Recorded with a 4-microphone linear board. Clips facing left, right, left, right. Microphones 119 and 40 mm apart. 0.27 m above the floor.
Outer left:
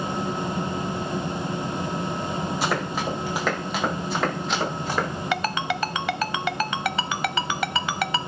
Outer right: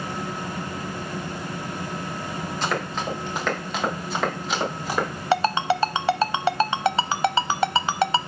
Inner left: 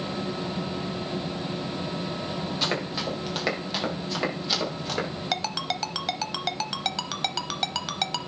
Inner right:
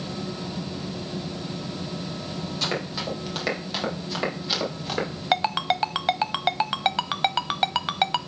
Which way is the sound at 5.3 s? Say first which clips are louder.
Outer right 7 dB, inner right 8 dB; 30° right (ahead or behind).